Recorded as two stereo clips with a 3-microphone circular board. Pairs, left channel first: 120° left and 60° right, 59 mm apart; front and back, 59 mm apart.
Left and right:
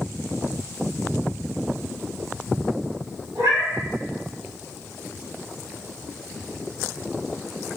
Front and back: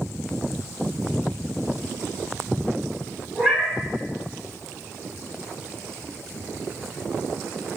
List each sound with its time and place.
3.4 s a cat meowing: 85° right, 1.2 m